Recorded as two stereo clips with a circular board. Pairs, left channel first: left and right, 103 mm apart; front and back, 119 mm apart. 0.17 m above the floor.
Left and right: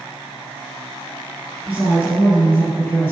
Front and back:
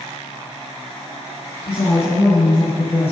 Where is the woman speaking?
10° left, 3 m.